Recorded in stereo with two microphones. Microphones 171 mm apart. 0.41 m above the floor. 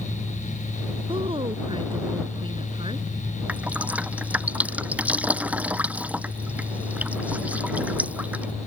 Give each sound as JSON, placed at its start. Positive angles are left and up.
{"t": 1.1, "sound": "a woman speaking", "side_deg": -30}
{"t": 3.5, "sound": "dripping", "side_deg": -10}